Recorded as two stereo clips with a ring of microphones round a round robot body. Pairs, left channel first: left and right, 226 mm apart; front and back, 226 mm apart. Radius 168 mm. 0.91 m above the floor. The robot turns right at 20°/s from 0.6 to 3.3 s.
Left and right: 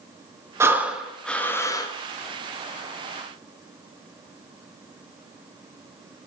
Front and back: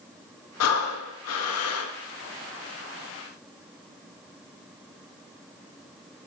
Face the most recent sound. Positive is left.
turn(degrees=45)